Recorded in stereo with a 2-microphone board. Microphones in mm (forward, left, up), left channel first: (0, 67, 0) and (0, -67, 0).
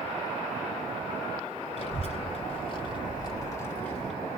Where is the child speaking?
60° left (ahead or behind), 1.5 m; by 4.1 s centre (ahead or behind), 0.8 m.